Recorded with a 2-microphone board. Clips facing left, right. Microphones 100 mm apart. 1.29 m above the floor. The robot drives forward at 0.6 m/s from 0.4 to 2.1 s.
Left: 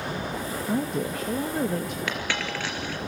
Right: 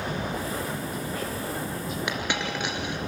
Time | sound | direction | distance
0.7 | a woman speaking | 90° left | 1.4 m
2.1 | a dropped coin | 20° right (ahead or behind) | 3 m